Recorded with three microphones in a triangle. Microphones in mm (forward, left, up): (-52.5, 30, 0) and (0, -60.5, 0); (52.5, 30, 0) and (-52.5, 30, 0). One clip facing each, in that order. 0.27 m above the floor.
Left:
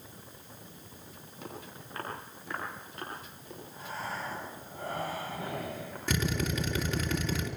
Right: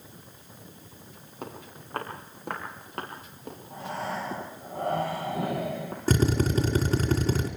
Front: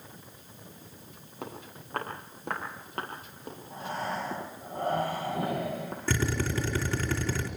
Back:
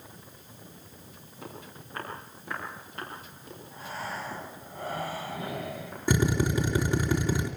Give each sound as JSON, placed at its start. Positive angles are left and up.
{"t": 1.4, "sound": "footsteps", "azimuth_deg": -20, "distance_m": 10.0}
{"t": 3.7, "sound": "breathing", "azimuth_deg": -35, "distance_m": 6.5}
{"t": 6.1, "sound": "a drill", "azimuth_deg": -105, "distance_m": 3.0}